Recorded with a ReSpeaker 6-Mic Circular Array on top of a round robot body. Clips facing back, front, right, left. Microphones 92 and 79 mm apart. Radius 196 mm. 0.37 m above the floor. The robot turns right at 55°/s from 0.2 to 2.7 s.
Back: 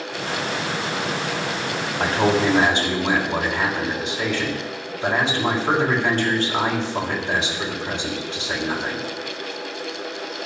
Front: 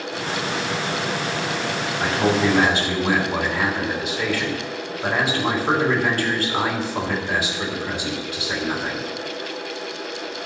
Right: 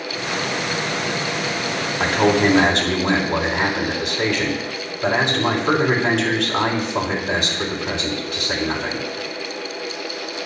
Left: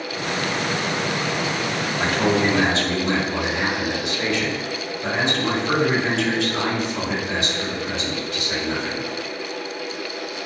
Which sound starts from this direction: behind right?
A man speaking, at 2.0 s.